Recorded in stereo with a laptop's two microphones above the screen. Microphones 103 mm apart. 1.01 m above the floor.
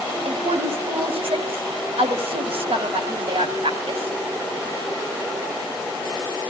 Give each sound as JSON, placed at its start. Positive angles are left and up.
{"t": 0.2, "sound": "a woman speaking", "side_deg": -80, "distance_m": 6.0}